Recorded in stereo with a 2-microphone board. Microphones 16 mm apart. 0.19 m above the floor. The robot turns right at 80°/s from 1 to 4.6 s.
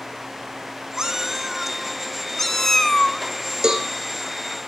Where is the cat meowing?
75° right, 0.8 m; by 3.2 s 100° left, 0.8 m.